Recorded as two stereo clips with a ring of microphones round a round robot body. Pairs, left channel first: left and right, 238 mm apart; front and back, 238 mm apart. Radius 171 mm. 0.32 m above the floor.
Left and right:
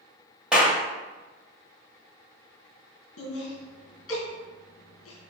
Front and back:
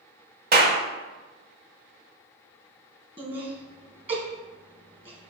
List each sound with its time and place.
0.5 s a clap: 175° right, 1.1 m
3.2 s laughter: 115° left, 3 m